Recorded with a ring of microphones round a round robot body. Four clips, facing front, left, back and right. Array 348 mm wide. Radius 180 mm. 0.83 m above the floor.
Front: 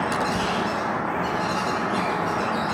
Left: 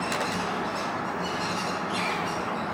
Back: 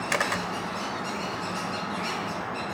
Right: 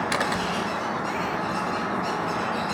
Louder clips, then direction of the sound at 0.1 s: Right 3 dB, front 4 dB; 145° right.